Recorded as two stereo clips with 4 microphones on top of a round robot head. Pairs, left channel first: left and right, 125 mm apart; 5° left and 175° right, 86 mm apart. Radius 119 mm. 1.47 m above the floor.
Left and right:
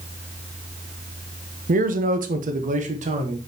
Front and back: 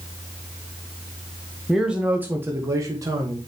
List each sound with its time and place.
1.7 s a man speaking: 90° right, 1.2 m; by 3.4 s 125° right, 1.7 m